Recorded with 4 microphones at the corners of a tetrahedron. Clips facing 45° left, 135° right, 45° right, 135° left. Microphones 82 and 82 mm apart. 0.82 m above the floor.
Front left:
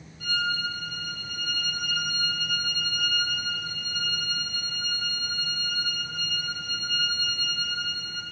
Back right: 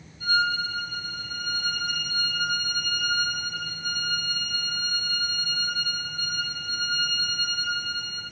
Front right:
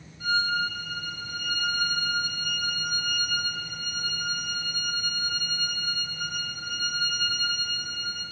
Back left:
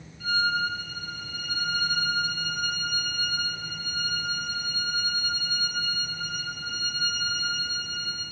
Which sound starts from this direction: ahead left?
A violin, at 0.2 s.